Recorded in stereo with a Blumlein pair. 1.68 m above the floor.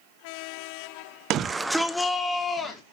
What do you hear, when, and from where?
1.3 s a shout: 35° right, 0.6 m; by 2.8 s 20° left, 2 m